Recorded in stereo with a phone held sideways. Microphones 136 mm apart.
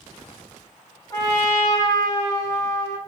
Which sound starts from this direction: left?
A trumpet, at 1.1 s.